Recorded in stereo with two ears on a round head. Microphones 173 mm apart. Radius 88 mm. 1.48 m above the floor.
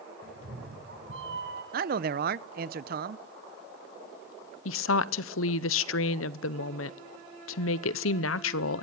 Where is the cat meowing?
55° right (ahead or behind), 3 m.